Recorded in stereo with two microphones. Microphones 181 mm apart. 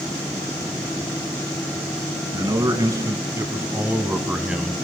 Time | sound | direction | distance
2.3 | a man speaking | 20° right (ahead or behind) | 3 m